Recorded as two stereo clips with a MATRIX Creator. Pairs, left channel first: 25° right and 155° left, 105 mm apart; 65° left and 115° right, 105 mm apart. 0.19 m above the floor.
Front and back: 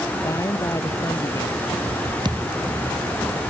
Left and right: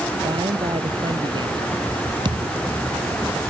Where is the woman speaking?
75° right.